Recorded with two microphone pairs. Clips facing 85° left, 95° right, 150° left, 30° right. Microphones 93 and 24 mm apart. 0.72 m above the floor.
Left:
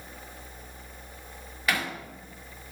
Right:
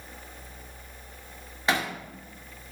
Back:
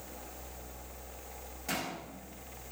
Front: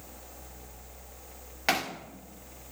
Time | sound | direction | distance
1.7 | hammering | 35° right | 1.6 m